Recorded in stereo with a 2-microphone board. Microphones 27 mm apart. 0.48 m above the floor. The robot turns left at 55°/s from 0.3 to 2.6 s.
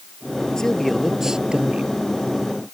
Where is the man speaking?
20° left; by 1.9 s 55° right.